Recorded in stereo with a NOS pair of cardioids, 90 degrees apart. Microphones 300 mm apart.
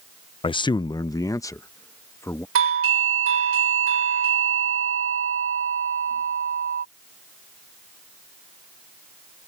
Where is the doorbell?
50° right.